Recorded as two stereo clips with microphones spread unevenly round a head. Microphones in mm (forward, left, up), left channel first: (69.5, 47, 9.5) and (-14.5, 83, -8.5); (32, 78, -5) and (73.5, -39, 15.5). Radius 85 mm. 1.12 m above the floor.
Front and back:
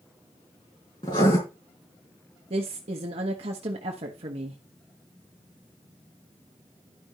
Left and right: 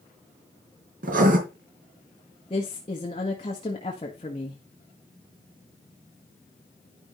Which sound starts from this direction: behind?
A woman speaking, at 2.5 s.